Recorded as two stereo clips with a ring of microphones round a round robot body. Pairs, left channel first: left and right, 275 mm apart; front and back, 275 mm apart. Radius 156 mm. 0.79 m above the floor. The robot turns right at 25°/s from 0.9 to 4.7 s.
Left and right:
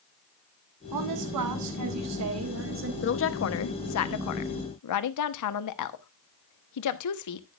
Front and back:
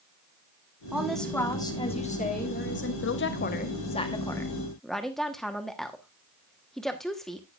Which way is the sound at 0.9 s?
95° right.